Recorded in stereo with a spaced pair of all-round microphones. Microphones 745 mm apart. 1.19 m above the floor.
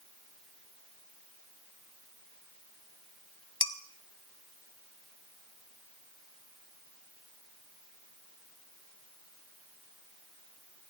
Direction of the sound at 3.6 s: 35° left (ahead or behind).